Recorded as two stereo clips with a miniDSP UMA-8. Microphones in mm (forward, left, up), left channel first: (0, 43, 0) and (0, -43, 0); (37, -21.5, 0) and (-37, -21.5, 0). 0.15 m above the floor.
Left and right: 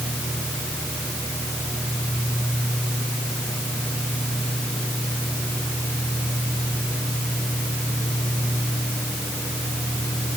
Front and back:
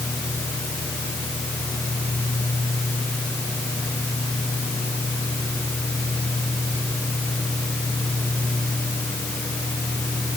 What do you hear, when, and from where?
Only background noise.